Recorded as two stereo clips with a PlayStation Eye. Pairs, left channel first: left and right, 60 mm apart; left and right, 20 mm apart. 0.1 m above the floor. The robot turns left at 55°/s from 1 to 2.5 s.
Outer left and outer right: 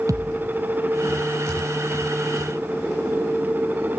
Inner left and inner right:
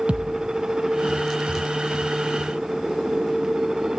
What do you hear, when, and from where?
0.1 s a thud: 65° right (ahead or behind), 1.1 m